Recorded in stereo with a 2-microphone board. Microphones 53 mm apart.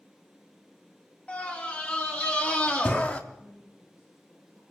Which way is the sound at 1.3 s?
25° left (ahead or behind).